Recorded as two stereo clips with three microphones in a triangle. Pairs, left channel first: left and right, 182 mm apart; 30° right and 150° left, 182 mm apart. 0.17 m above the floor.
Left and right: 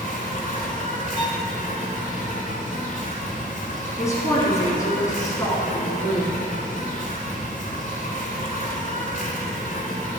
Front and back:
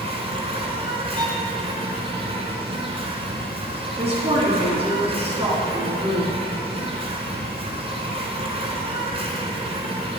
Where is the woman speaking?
145° left, 1.6 m.